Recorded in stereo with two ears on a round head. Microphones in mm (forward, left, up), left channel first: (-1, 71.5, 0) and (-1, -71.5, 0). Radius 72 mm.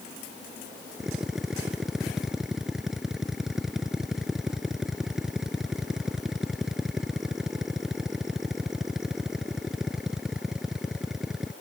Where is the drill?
5° right (ahead or behind).